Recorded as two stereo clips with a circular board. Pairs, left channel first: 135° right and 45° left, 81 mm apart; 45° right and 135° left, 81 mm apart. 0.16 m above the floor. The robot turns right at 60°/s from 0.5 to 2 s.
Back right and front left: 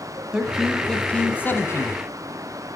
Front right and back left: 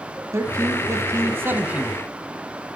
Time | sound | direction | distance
0.3 | a man speaking | 120° left | 1.2 m